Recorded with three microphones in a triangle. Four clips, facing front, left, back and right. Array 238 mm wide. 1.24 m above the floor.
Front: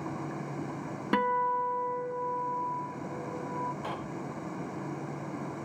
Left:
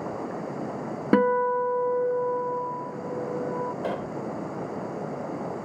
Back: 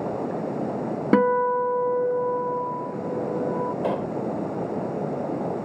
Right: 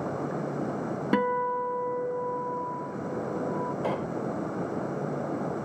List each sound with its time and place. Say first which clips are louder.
0.0 s running water: right 1 dB, back 9 dB; 175° right
1.1 s a guitar: left 6 dB, back 8 dB; 150° left
3.8 s a pop: even, back 11 dB; 175° left